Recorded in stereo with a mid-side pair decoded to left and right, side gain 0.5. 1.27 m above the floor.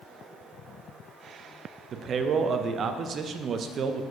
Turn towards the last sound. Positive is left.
turn(degrees=-50)